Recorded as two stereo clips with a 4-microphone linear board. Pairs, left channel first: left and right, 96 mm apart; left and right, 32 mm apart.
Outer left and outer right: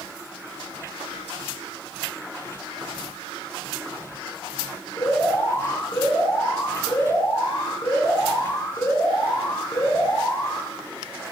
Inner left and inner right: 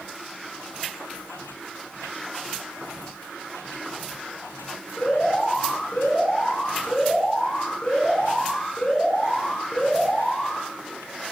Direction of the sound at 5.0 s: 25° left (ahead or behind).